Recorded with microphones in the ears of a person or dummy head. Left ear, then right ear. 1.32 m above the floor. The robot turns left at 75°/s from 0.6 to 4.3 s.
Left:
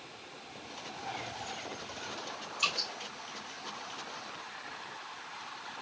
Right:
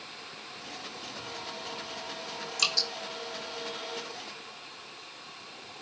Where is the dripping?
75° right (ahead or behind), 2 m; by 2.9 s 60° right (ahead or behind), 2 m.